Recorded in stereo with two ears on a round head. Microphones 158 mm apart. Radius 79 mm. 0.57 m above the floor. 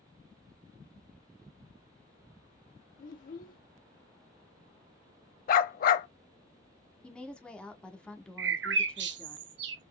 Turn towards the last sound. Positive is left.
turn(degrees=-70)  # may be behind; listen again after turning